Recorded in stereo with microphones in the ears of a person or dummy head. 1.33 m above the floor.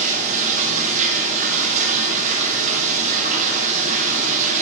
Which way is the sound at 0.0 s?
40° right (ahead or behind).